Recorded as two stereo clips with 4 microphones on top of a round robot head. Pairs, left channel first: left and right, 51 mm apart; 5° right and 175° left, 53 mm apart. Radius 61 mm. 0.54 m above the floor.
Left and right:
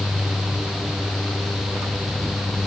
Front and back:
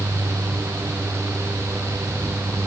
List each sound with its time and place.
Only background noise.